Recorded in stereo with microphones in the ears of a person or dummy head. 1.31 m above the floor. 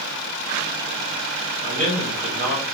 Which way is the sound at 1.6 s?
35° right (ahead or behind).